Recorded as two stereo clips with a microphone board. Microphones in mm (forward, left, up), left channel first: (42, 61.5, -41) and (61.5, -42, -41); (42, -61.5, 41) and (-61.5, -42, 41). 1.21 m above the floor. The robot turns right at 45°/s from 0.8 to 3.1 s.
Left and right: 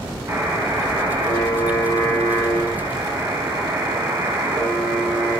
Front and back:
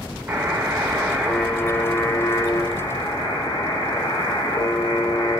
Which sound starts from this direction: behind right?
A buzzer, at 0.3 s.